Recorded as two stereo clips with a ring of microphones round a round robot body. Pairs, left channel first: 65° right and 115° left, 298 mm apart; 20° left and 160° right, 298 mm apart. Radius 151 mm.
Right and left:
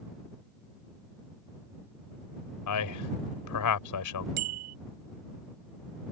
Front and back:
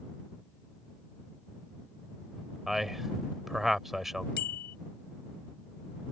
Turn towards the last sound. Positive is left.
turn(degrees=80)